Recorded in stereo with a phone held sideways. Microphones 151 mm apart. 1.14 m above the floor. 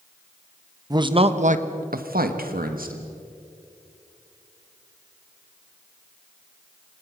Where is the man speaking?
25° right (ahead or behind), 1.2 m; by 3.0 s 70° right (ahead or behind), 2 m.